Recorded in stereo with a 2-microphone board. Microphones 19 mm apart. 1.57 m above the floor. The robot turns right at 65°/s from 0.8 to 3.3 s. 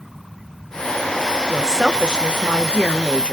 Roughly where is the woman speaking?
Ahead.